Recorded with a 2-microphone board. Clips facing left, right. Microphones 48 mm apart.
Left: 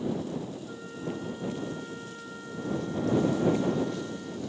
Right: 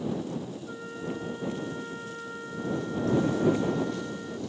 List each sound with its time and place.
0.7 s a flute: 20° right (ahead or behind)